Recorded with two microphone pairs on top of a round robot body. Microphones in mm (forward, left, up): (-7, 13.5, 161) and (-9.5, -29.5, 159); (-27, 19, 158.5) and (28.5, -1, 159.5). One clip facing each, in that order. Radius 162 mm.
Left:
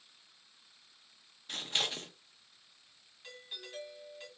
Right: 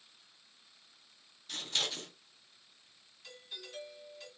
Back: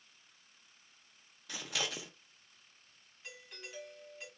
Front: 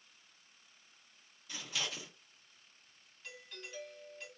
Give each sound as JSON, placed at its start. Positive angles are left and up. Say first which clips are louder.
{"t": 1.5, "sound": "scissors", "louder": "left 1 dB, back 2 dB", "azimuth_deg": 150, "distance_m": 0.6}
{"t": 3.2, "sound": "a doorbell", "louder": "left 1 dB, even", "azimuth_deg": 110, "distance_m": 1.8}